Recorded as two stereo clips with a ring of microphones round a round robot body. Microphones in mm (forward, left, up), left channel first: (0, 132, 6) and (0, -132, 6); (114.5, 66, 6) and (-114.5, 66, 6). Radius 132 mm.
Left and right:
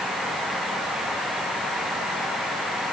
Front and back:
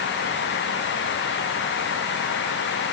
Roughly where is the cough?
No cough in this recording.